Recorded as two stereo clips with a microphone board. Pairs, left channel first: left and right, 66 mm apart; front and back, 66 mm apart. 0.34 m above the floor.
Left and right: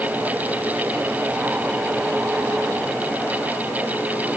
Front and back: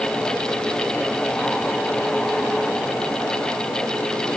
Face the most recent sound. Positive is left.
No sound to turn to.